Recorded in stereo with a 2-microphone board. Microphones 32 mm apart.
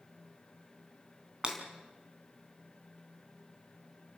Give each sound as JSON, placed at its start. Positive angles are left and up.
{"t": 1.4, "sound": "breaking glass", "side_deg": -25, "distance_m": 3.0}